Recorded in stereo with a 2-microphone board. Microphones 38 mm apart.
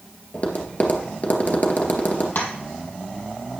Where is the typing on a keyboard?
I don't hear typing on a keyboard.